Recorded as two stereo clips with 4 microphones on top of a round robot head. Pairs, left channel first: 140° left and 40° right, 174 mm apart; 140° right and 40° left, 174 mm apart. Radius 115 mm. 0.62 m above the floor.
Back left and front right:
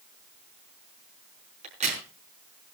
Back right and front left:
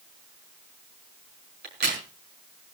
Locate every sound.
1.6 s a crack: 10° left, 5.5 m